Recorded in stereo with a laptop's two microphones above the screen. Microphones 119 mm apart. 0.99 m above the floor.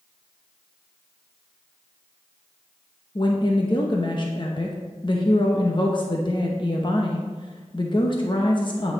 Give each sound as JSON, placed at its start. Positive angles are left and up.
{"t": 3.1, "sound": "a woman speaking", "side_deg": 40, "distance_m": 0.8}